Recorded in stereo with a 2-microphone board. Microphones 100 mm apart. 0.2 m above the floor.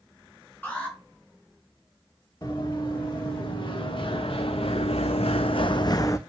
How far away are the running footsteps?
About 2.0 m.